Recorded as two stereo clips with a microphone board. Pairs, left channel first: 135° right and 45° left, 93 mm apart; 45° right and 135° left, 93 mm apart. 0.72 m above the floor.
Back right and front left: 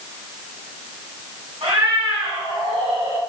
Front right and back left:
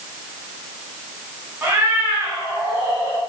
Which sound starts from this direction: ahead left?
A cat meowing, at 1.6 s.